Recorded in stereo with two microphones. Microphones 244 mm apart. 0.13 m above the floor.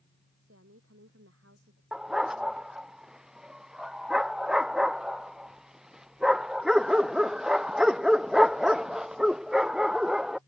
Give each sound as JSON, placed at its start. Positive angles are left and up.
{"t": 0.4, "sound": "a woman speaking", "side_deg": -70}
{"t": 1.9, "sound": "a dog barking", "side_deg": 0}